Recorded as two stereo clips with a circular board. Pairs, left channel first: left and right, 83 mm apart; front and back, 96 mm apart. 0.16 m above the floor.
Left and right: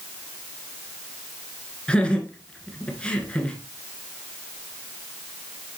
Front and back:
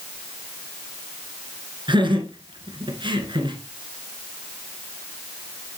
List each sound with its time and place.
1.9 s laughter: 165° left, 1.8 m